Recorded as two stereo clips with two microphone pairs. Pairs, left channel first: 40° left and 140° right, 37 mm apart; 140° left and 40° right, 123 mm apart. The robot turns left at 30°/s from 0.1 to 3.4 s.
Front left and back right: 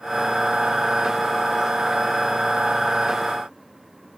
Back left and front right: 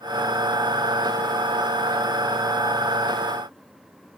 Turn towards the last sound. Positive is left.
No sound to turn to.